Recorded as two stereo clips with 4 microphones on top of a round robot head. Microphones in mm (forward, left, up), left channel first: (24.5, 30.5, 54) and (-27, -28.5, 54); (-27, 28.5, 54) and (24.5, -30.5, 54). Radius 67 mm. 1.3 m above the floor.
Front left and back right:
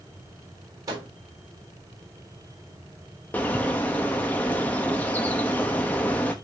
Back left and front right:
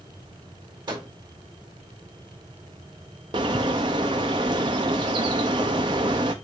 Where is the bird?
20° right, 0.8 m.